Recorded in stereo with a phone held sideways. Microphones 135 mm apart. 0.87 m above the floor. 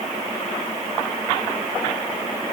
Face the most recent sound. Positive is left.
No sound to turn to.